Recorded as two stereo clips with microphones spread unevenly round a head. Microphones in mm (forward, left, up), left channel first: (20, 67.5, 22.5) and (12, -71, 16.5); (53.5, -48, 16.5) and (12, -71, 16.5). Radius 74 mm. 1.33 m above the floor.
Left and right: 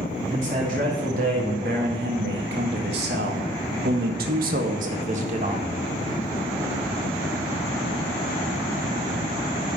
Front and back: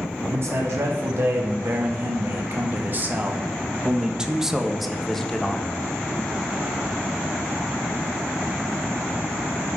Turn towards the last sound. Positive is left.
turn(degrees=-45)